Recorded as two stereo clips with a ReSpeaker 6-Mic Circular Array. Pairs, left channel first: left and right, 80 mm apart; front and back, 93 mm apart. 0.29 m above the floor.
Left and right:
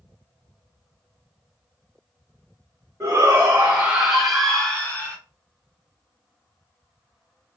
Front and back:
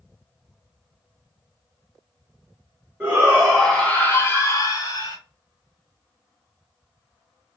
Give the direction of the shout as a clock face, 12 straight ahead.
4 o'clock.